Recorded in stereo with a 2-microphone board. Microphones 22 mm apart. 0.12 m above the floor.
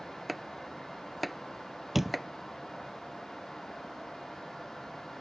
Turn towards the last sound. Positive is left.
turn(degrees=-10)  # may be behind; listen again after turning